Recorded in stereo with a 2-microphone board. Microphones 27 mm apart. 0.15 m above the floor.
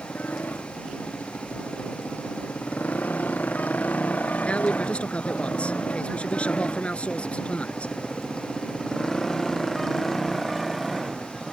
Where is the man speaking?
50° left (ahead or behind).